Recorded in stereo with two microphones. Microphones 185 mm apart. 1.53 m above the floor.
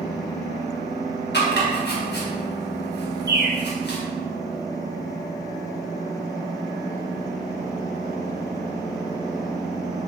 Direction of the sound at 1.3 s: 65° left (ahead or behind).